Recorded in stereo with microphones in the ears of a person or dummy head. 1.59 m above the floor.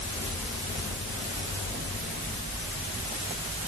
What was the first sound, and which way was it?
Only background noise.